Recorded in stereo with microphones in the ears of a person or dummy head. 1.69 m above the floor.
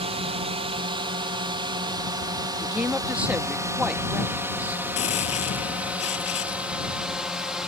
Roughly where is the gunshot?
Left.